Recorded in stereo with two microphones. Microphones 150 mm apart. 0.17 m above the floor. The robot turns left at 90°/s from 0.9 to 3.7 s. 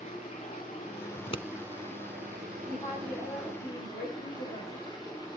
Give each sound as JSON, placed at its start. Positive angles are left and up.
{"t": 0.0, "sound": "running water", "azimuth_deg": 45, "distance_m": 10.0}
{"t": 1.1, "sound": "scissors", "side_deg": 40, "distance_m": 1.0}
{"t": 2.7, "sound": "a woman speaking", "azimuth_deg": 170, "distance_m": 8.0}